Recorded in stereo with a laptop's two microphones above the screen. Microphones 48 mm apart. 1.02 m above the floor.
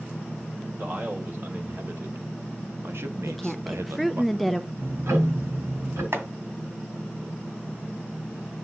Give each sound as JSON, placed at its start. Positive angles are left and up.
{"t": 0.8, "sound": "a man speaking", "side_deg": -50, "distance_m": 4.0}
{"t": 3.2, "sound": "a woman speaking", "side_deg": 5, "distance_m": 0.7}
{"t": 4.8, "sound": "ticking", "side_deg": -85, "distance_m": 3.5}
{"t": 6.1, "sound": "chopping", "side_deg": -65, "distance_m": 2.0}